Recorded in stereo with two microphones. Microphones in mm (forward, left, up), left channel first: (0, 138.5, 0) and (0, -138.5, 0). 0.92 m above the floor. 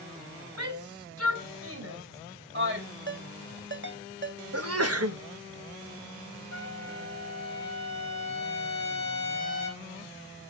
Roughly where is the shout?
Right.